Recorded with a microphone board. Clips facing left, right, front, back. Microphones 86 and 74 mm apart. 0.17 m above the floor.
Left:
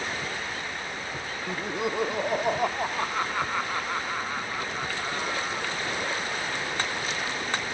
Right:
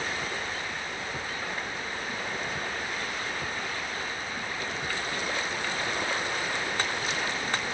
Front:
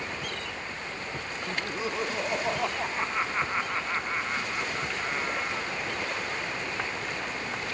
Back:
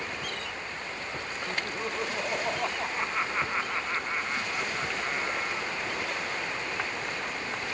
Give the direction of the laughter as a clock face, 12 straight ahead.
9 o'clock.